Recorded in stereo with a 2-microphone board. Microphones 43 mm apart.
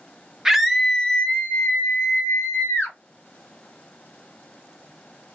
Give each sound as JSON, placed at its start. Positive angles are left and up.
{"t": 0.5, "sound": "a scream", "side_deg": -10, "distance_m": 0.8}